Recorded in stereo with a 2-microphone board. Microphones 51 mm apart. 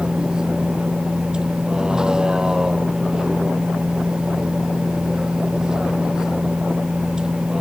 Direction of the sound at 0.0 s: 15° right (ahead or behind).